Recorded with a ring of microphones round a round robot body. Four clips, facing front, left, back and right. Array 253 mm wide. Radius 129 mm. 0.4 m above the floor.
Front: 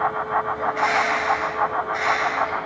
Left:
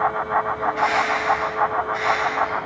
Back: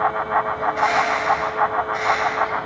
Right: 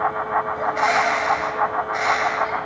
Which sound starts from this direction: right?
A bird, at 0.6 s.